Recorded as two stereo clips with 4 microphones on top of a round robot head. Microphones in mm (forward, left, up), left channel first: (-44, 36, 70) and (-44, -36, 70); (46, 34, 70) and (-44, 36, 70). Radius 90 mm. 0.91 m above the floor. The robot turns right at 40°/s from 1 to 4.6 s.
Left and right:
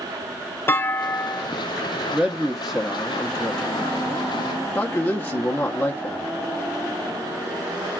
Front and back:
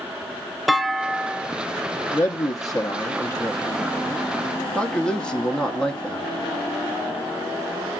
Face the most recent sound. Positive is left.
turn(degrees=70)